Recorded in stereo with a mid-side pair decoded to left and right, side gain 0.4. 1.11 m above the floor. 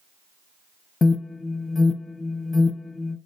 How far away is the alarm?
About 1.1 m.